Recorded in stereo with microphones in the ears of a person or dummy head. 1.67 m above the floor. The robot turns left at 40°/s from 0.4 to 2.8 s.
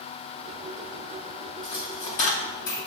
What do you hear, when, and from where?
1.6 s a dropped coin: 25° left (ahead or behind), 2.5 m; by 2.8 s 50° left (ahead or behind), 2.5 m